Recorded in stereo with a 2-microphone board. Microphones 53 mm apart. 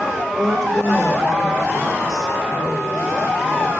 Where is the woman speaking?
10° left (ahead or behind), 9.5 m.